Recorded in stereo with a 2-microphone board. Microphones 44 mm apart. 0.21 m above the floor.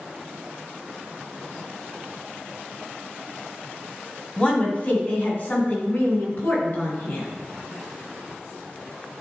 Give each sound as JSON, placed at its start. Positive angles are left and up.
{"t": 4.4, "sound": "a woman speaking", "side_deg": 25, "distance_m": 1.7}